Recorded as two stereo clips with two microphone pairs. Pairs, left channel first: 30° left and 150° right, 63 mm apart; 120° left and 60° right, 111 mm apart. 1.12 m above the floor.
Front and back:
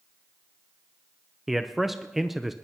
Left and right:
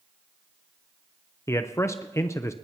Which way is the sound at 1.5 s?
140° left.